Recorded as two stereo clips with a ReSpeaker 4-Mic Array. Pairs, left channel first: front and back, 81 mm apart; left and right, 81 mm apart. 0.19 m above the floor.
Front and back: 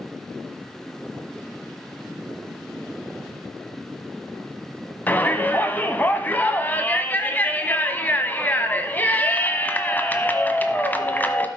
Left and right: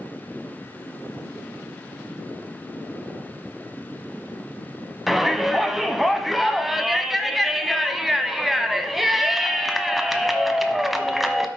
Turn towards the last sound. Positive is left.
turn(degrees=-5)